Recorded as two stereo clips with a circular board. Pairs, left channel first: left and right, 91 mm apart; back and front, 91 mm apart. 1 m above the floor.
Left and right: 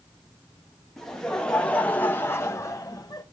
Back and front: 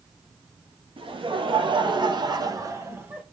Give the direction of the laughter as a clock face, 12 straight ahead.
12 o'clock.